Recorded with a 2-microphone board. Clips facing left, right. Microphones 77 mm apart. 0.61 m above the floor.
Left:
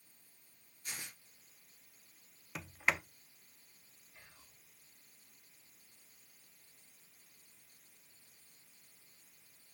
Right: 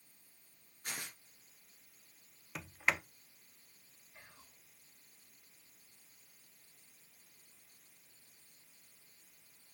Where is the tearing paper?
80° right, 3.5 m.